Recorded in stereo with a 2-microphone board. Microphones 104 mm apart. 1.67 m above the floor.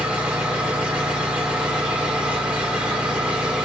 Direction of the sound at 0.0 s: 15° right (ahead or behind).